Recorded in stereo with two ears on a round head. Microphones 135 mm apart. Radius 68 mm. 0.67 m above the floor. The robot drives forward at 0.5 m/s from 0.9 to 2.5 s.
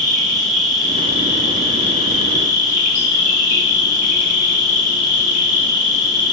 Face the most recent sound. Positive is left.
turn(degrees=65)  # may be behind; listen again after turning